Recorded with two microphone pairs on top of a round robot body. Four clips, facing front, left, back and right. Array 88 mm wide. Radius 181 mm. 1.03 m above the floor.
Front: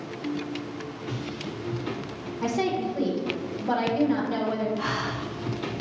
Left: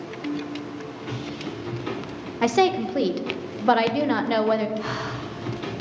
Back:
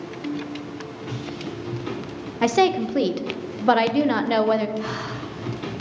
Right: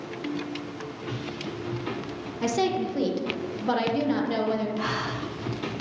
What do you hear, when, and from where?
2.4 s a woman speaking: 140° left, 0.5 m
4.8 s breathing: 75° right, 0.7 m